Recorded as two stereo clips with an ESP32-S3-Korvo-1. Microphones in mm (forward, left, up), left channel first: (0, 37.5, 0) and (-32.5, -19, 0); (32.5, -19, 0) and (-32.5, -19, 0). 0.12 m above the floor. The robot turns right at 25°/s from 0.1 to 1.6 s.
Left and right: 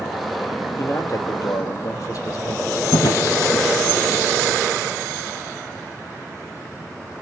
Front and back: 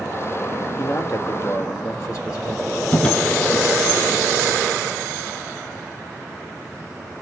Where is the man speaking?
25° left, 3 m; by 2.8 s 45° left, 3 m.